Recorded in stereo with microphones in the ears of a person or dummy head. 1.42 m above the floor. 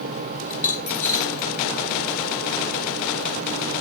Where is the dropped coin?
55° left (ahead or behind), 4 m.